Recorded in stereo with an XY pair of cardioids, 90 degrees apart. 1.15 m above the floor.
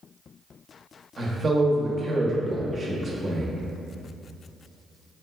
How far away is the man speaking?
About 0.8 m.